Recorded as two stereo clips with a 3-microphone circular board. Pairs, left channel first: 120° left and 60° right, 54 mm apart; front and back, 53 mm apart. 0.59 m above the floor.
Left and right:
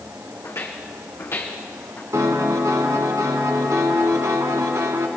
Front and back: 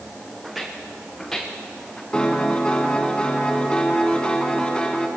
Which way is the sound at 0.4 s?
95° left.